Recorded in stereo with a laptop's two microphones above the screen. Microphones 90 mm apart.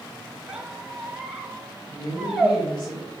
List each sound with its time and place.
0.5 s a squeak: 10° right (ahead or behind), 1.1 m
1.9 s a woman speaking: 55° left (ahead or behind), 0.9 m